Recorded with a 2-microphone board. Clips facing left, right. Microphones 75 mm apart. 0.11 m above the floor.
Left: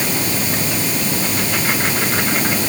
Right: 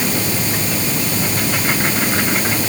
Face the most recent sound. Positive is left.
No sound to turn to.